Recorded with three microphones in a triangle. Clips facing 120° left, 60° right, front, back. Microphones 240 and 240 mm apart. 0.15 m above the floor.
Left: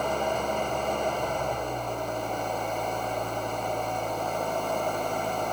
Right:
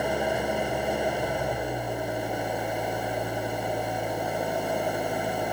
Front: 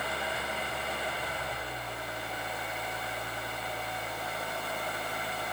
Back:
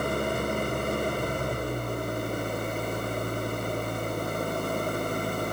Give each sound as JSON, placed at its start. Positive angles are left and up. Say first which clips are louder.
{"t": 0.0, "sound": "an engine running", "louder": "right 2 dB, back 10 dB", "azimuth_deg": -140}